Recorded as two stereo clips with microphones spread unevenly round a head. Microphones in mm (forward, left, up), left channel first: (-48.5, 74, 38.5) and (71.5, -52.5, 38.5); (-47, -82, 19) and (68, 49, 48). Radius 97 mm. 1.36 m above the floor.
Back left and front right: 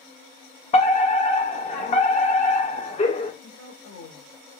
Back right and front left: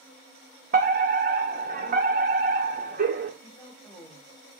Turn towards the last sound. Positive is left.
turn(degrees=145)